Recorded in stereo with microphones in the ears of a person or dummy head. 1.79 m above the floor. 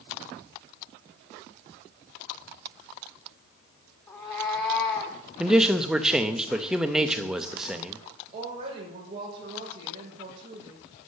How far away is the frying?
No frying in this recording.